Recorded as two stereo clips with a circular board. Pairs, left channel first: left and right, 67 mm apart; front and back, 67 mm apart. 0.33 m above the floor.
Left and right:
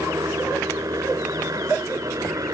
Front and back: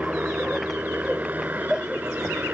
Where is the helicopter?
115° right.